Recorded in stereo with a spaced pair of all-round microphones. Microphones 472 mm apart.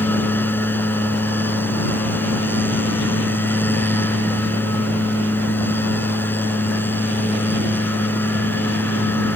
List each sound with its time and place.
0.0 s a machine running: 5° left (ahead or behind)